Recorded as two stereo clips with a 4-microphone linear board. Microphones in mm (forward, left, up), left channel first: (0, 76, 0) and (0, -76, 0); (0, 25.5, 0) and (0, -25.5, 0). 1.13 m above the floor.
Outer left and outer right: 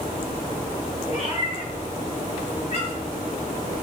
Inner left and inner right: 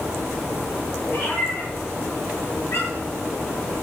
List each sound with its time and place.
1.1 s a cat meowing: 40° left (ahead or behind), 8 m; by 3.1 s 50° left (ahead or behind), 7.5 m